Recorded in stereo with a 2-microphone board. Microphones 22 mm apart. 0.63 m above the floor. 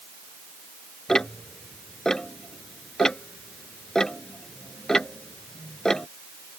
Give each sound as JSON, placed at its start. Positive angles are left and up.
{"t": 1.1, "sound": "ticking", "side_deg": 30}